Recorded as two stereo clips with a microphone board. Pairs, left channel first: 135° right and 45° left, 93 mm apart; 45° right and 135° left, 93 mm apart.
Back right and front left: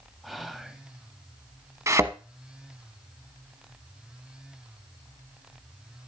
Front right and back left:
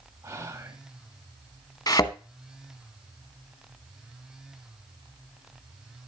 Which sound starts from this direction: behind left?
Whispering, at 0.2 s.